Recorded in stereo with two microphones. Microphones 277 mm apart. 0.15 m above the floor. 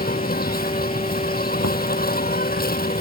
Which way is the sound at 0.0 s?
35° left (ahead or behind).